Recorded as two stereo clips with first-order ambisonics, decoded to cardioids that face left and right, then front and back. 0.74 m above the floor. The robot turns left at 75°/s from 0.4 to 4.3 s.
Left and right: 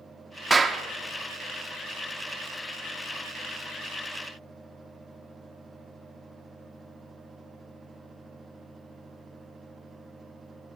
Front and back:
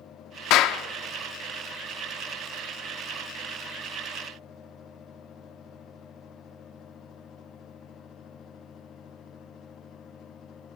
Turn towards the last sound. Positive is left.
turn(degrees=70)